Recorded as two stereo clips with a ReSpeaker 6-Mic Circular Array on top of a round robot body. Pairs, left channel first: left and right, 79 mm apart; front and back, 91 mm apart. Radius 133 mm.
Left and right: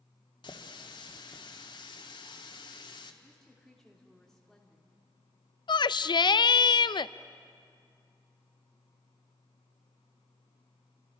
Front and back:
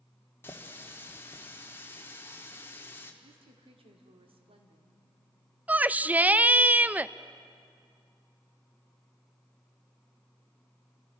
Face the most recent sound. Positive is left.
turn(degrees=105)